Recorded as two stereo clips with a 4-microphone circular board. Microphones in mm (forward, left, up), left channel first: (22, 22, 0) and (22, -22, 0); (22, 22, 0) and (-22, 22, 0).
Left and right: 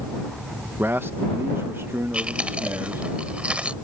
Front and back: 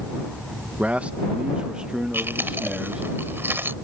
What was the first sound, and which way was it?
A man speaking, 125° right.